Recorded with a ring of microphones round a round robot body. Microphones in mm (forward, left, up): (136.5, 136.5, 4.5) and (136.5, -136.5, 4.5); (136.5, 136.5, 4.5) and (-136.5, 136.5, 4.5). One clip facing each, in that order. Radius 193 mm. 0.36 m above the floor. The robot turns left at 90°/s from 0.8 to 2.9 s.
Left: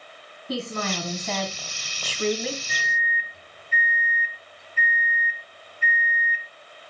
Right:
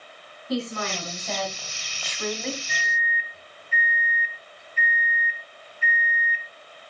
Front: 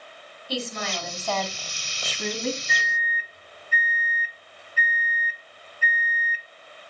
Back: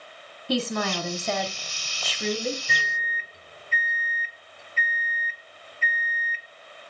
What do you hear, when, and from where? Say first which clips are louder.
0.5 s a woman speaking: right 1 dB, back 5 dB; 155° left, 2.5 m; by 2.6 s 5° right, 2.5 m
2.7 s a microwave: even, even; 140° left, 0.9 m; by 6.5 s 120° left, 0.9 m